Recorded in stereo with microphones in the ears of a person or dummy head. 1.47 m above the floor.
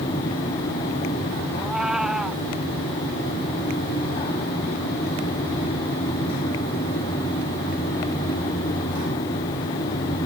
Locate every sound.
1.6 s a cat meowing: 5° right (ahead or behind)